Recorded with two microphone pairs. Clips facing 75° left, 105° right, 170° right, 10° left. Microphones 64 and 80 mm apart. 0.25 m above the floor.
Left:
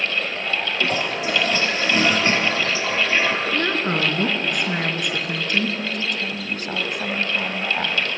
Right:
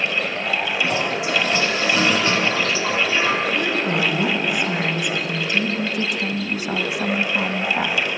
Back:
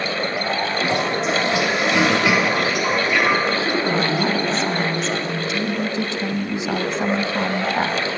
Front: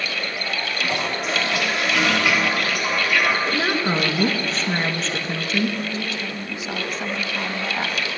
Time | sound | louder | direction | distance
0.8 | a toilet flushing | right 1 dB, back 3 dB | 125° left | 3.5 m
3.5 | a woman speaking | right 1 dB, back 2 dB | 50° left | 4 m
5.8 | a woman speaking | right 3 dB, back 5 dB | 175° right | 1.5 m